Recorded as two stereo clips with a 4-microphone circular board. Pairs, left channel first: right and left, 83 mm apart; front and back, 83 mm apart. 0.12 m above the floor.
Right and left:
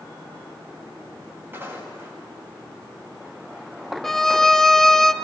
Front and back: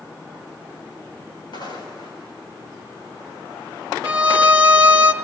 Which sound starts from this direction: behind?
A violin, at 4.0 s.